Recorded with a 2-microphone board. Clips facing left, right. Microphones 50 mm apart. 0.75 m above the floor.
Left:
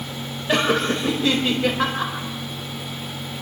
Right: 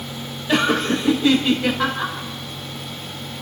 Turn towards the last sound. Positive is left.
turn(degrees=15)  # may be behind; listen again after turning